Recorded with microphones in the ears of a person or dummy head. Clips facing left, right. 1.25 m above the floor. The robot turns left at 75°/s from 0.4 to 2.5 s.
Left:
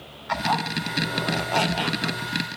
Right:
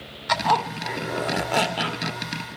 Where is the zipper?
65° right, 2 m; by 2.2 s 160° left, 2 m.